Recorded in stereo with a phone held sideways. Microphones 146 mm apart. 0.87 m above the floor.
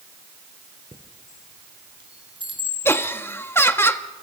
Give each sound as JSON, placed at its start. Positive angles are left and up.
{"t": 0.9, "sound": "a chime", "side_deg": -35, "distance_m": 2.0}
{"t": 2.9, "sound": "laughter", "side_deg": 15, "distance_m": 1.3}